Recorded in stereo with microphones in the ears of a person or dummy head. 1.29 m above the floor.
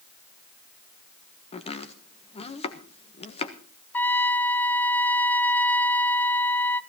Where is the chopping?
30° left (ahead or behind), 1.3 m.